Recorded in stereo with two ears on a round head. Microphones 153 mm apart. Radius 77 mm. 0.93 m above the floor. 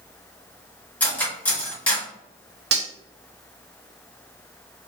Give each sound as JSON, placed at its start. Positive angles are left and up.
{"t": 1.0, "sound": "cutlery clinking", "side_deg": 10, "distance_m": 1.3}
{"t": 2.7, "sound": "cutlery clinking", "side_deg": -70, "distance_m": 0.6}